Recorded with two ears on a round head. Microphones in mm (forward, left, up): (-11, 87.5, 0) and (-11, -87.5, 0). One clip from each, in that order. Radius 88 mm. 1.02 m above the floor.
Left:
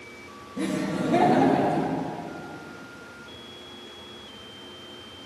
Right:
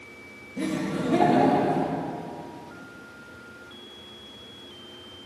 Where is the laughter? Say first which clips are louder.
Left 1 dB; centre (ahead or behind), 1.7 m; by 1.9 s 5° right (ahead or behind), 2.5 m.